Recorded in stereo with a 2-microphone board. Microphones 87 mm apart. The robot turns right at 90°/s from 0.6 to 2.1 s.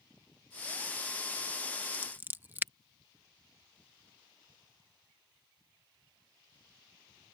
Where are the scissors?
15° right (ahead or behind); by 2.7 s 25° right (ahead or behind).